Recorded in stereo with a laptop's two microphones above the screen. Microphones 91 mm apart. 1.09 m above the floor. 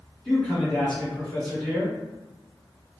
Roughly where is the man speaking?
Centre.